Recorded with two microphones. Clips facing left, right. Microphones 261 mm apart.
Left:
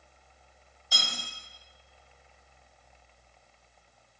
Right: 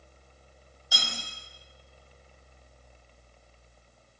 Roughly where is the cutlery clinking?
Centre.